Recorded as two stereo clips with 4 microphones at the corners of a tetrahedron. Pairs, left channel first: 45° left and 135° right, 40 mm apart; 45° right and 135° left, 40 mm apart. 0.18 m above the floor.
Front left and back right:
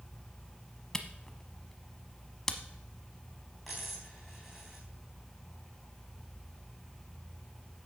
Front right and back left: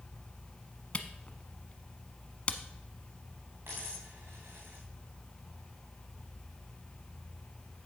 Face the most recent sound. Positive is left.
turn(degrees=140)